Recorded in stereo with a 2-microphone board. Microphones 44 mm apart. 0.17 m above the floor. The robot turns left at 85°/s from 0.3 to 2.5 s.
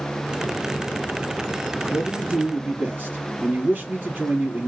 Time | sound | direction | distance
1.9 | a man speaking | 15° right | 1.5 m